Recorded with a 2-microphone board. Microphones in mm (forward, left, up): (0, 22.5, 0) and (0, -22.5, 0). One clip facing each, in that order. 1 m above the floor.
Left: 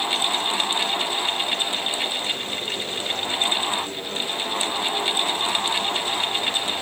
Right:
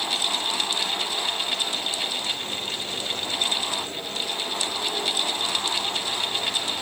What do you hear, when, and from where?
Only background noise.